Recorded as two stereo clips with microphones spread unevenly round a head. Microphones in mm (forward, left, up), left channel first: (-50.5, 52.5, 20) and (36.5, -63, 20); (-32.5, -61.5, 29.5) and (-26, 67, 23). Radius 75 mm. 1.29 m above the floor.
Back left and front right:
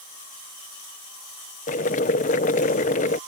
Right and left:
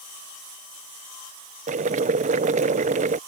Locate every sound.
1.7 s boiling: 95° left